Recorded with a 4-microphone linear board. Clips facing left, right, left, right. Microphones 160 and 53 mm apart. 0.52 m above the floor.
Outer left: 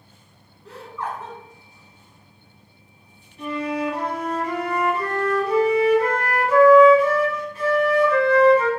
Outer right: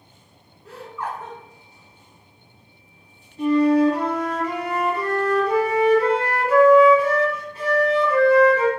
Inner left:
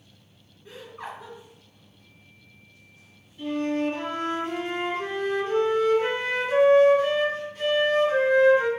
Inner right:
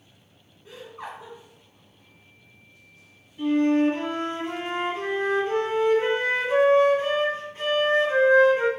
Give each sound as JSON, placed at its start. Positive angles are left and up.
{"t": 0.7, "sound": "laughter", "side_deg": -10, "distance_m": 1.4}
{"t": 3.4, "sound": "a flute", "side_deg": -35, "distance_m": 1.4}